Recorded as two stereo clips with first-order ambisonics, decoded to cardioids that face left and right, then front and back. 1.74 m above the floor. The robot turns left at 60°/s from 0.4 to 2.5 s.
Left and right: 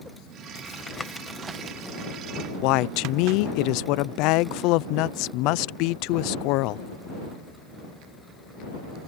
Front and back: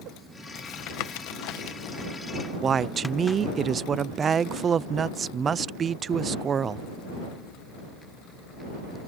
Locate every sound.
0.6 s tapping: 35° left; by 3.4 s 80° right
2.6 s a woman speaking: 115° left